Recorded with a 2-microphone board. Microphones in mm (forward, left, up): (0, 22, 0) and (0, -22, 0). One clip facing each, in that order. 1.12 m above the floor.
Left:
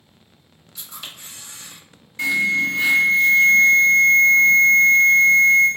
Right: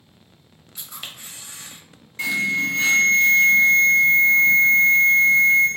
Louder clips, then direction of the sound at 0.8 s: Even; 30° right (ahead or behind).